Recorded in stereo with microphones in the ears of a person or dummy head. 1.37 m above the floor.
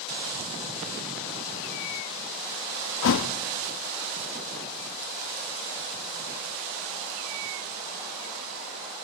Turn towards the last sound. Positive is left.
turn(degrees=60)  # may be behind; listen again after turning